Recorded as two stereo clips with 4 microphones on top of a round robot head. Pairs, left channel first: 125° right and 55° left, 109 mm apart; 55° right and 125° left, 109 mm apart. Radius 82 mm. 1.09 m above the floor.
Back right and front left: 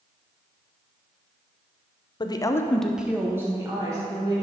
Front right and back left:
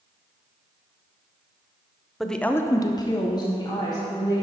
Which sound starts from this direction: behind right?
A woman speaking, at 2.2 s.